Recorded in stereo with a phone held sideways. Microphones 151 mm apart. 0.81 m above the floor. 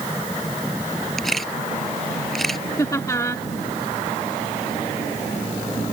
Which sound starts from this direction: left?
Laughter, at 2.8 s.